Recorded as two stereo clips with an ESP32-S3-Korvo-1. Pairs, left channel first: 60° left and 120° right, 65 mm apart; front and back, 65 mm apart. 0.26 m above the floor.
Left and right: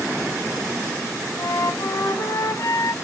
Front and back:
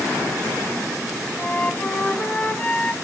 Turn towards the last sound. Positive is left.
turn(degrees=65)